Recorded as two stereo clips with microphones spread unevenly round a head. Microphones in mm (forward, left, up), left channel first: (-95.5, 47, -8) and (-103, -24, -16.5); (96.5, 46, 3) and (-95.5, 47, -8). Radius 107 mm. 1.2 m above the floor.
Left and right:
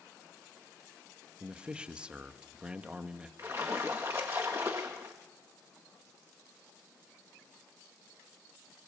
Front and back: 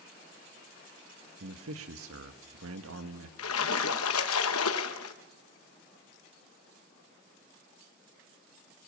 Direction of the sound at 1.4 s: 170° right.